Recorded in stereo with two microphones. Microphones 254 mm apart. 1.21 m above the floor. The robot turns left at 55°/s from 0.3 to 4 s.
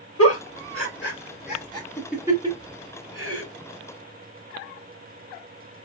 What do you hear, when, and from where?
0.2 s a giggle: 70° left (ahead or behind), 1.4 m; by 3.4 s 65° right (ahead or behind), 1.4 m